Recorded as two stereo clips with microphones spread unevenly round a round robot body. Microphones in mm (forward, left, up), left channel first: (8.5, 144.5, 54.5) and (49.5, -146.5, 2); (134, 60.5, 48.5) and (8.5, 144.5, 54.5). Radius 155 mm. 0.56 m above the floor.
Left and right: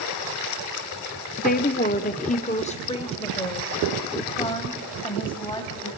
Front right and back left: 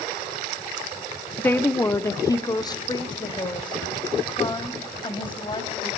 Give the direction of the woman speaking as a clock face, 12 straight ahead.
11 o'clock.